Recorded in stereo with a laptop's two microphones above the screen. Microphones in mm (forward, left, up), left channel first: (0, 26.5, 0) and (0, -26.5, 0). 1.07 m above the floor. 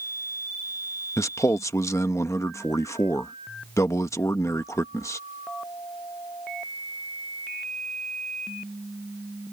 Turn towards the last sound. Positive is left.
turn(degrees=70)  # may be behind; listen again after turning